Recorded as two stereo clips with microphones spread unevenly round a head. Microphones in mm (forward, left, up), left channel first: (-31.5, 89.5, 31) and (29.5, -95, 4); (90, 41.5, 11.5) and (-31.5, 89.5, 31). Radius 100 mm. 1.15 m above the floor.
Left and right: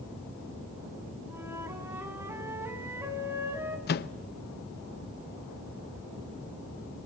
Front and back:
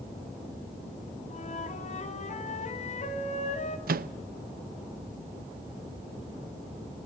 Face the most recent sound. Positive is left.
turn(degrees=150)